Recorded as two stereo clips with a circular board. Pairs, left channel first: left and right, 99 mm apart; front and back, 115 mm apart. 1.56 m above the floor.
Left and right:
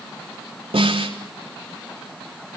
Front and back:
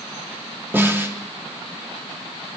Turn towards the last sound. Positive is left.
turn(degrees=-110)